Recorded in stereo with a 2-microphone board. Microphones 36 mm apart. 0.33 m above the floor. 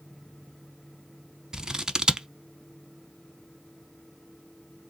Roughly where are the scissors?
Centre.